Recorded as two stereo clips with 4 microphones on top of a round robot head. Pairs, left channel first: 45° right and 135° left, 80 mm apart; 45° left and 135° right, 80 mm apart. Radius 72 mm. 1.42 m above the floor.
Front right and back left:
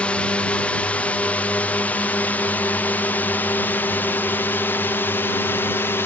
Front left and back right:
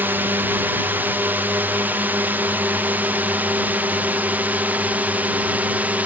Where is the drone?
105° right; by 6.1 s 80° right.